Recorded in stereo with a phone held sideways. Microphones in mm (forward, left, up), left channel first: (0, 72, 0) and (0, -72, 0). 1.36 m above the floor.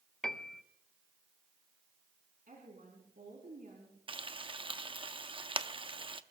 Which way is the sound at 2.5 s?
70° right (ahead or behind).